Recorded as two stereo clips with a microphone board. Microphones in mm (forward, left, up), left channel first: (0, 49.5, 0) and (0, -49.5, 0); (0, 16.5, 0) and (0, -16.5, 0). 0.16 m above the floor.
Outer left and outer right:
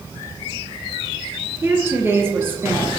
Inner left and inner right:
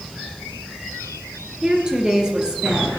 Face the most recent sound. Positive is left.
turn(degrees=-25)  # may be behind; listen again after turning